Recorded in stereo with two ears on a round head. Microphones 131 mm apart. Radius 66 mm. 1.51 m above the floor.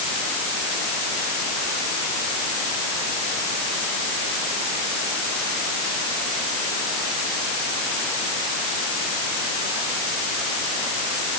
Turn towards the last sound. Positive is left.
No sound to turn to.